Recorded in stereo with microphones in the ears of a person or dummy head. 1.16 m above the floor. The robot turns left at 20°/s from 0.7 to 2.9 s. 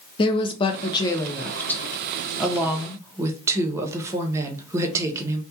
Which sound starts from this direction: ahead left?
A woman speaking, at 0.2 s.